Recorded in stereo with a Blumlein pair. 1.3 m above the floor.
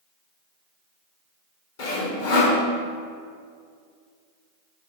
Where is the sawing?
55° left, 1.4 m.